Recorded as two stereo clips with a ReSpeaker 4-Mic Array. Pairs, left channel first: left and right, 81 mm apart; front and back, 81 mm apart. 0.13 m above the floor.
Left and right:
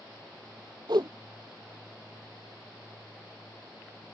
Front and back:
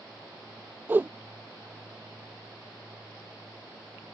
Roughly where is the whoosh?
Behind right.